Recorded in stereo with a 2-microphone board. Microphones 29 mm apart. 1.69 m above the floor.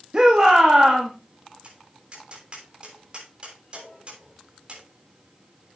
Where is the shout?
30° right (ahead or behind), 2.5 m.